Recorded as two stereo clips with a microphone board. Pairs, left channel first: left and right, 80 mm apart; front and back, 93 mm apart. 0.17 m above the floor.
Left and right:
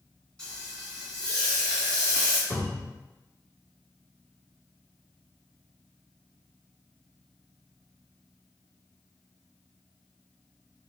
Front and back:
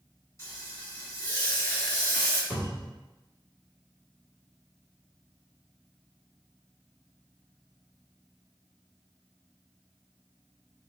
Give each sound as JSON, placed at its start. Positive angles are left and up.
{"t": 0.4, "sound": "frying", "azimuth_deg": 25, "distance_m": 1.8}
{"t": 2.5, "sound": "a cupboard door", "azimuth_deg": 65, "distance_m": 1.5}